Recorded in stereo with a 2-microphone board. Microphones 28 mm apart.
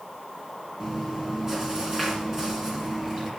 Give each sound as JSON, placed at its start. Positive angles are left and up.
{"t": 0.8, "sound": "chewing", "side_deg": -25, "distance_m": 2.5}